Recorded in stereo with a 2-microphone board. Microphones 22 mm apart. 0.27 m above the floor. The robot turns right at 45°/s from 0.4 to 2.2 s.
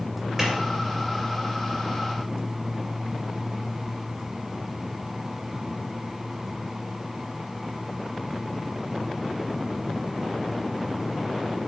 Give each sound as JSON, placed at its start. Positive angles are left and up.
{"t": 0.4, "sound": "a clap", "side_deg": -25, "distance_m": 3.5}